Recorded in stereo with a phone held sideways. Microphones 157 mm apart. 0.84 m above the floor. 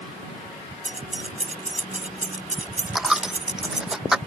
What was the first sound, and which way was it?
Keys jangling, 50° right (ahead or behind).